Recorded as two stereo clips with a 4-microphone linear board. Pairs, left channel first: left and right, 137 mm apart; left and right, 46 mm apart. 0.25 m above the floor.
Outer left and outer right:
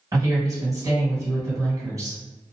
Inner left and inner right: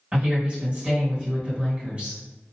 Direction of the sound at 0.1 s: 25° right (ahead or behind).